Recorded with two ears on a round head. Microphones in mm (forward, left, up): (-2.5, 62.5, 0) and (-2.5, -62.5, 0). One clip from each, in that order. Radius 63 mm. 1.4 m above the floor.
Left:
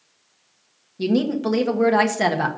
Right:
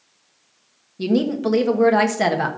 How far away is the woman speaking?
About 1.3 m.